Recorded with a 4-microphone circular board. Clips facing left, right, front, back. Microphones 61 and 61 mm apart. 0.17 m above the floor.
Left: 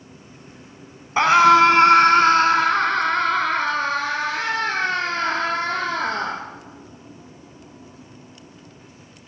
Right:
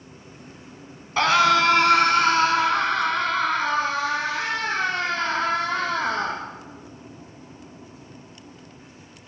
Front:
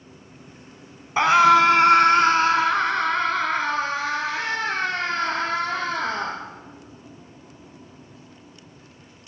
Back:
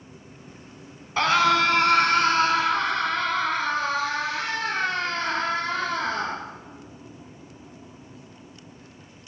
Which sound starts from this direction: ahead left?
A scream, at 1.2 s.